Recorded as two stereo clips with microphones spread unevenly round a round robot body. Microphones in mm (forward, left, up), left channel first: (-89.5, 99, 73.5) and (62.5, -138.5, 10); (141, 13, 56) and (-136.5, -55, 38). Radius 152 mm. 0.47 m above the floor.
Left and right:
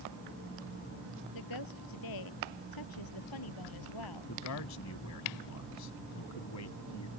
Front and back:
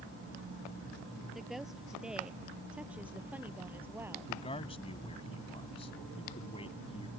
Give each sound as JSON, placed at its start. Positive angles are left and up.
{"t": 1.3, "sound": "a woman speaking", "azimuth_deg": 105}
{"t": 4.3, "sound": "a man speaking", "azimuth_deg": 85}